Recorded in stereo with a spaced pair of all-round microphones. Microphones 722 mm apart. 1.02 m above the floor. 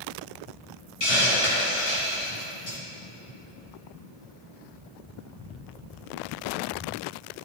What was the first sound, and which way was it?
A hiss, 80° left.